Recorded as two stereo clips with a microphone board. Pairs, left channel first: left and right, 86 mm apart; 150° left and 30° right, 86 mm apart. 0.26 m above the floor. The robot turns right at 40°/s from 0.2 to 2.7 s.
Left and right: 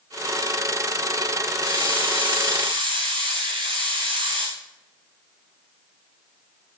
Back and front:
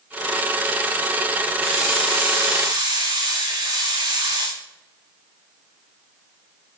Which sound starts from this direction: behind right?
A hiss, at 1.6 s.